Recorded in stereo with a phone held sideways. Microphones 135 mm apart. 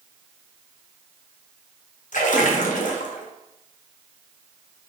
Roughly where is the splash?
Left.